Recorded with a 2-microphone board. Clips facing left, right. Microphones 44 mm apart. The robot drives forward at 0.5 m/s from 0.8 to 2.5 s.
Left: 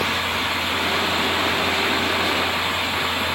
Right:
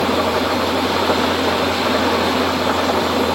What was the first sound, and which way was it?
An engine running, 65° right (ahead or behind).